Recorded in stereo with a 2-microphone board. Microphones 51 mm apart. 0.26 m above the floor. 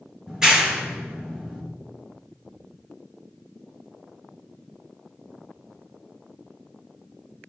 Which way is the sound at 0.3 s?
10° right (ahead or behind).